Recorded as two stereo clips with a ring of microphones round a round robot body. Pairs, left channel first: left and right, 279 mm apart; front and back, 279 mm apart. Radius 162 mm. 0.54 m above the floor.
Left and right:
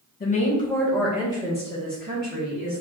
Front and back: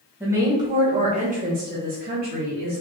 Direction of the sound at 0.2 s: 105° left.